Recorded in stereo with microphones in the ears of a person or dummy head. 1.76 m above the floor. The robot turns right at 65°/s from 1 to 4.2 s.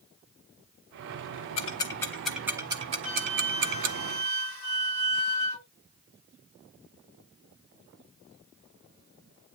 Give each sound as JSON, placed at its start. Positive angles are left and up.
{"t": 1.6, "sound": "ticking", "side_deg": 35, "distance_m": 0.7}
{"t": 3.0, "sound": "a flute", "azimuth_deg": -150, "distance_m": 7.5}